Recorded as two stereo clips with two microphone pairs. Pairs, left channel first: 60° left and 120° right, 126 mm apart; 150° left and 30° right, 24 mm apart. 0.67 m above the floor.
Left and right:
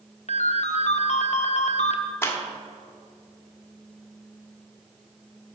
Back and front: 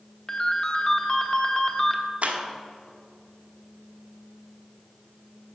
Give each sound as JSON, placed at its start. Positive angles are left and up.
{"t": 0.3, "sound": "a ringtone", "azimuth_deg": 80, "distance_m": 1.0}
{"t": 2.2, "sound": "a clap", "azimuth_deg": -10, "distance_m": 1.3}